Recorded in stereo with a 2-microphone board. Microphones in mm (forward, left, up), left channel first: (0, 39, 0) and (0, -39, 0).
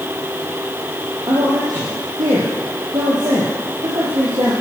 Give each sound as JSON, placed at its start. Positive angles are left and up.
{"t": 1.3, "sound": "a man speaking", "side_deg": -60, "distance_m": 7.0}